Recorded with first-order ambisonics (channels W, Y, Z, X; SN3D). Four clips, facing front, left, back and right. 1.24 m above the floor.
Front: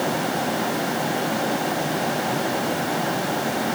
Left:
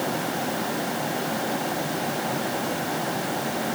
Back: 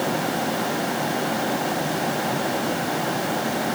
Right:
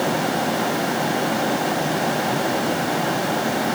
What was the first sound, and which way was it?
Only background noise.